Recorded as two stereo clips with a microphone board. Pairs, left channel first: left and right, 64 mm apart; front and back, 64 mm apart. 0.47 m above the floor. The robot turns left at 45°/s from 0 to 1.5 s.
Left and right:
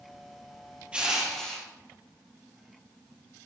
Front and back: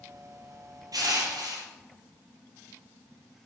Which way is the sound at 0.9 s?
165° right.